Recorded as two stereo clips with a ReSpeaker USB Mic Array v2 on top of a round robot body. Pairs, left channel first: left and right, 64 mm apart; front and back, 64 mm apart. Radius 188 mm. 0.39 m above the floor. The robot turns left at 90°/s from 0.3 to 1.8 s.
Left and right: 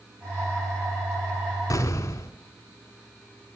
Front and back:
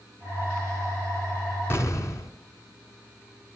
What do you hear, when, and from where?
1.7 s an explosion: 55° left, 1.0 m; by 2.3 s 45° left, 1.0 m